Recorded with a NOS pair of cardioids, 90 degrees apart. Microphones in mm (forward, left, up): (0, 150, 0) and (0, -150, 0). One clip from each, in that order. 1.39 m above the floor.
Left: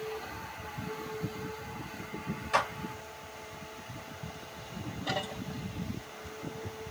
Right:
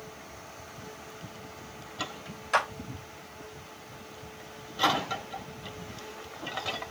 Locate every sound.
2.5 s a clap: 30° right, 1.6 m